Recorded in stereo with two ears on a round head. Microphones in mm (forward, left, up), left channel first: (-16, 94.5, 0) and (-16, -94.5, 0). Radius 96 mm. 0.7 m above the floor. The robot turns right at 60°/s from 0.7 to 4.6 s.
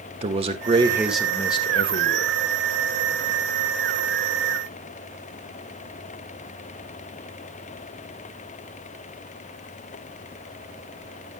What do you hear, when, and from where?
0.2 s a man speaking: 30° right, 1.7 m; by 2.4 s 75° left, 1.7 m